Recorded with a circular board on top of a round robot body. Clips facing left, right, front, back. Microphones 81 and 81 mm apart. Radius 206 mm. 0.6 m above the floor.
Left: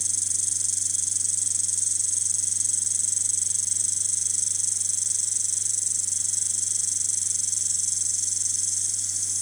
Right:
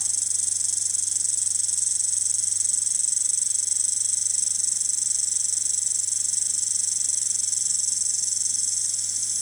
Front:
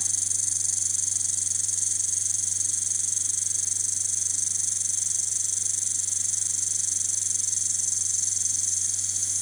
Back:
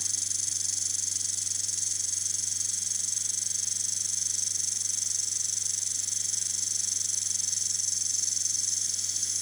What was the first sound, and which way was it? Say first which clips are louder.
An insect: even, front 2 dB; 60° right.